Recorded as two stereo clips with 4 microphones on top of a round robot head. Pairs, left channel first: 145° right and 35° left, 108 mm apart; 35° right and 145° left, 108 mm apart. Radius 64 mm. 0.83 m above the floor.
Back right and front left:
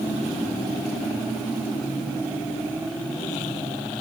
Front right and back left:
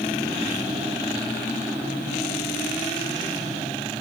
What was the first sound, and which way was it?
Only background noise.